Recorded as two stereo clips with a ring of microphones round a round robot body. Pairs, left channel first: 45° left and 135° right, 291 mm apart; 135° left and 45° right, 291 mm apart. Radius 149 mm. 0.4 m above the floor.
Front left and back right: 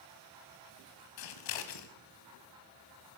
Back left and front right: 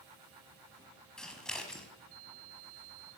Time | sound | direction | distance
1.2 | scissors | 45° left | 1.3 m